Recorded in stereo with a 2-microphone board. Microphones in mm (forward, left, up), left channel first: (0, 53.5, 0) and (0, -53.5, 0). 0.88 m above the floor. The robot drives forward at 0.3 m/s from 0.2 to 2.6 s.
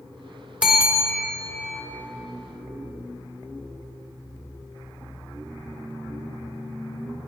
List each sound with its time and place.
0.6 s a bell: 10° right (ahead or behind), 1.5 m